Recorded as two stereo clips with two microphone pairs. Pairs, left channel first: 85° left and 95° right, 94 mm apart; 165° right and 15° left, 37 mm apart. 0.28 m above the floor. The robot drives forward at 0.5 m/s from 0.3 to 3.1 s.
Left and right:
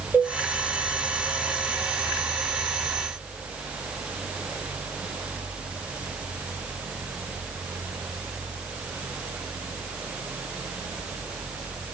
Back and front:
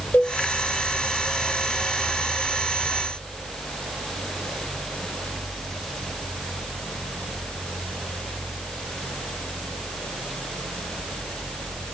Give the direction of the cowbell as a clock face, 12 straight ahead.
6 o'clock.